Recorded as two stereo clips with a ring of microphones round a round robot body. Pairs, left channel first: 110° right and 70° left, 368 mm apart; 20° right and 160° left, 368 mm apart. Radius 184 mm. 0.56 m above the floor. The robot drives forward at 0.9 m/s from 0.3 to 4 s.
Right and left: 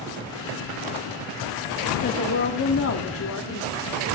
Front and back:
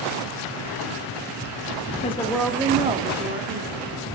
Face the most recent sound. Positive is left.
turn(degrees=-160)